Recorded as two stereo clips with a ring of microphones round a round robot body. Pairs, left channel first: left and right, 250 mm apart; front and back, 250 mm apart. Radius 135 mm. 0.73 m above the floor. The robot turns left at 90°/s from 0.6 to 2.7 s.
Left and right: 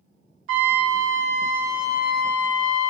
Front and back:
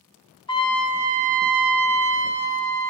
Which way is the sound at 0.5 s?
65° right.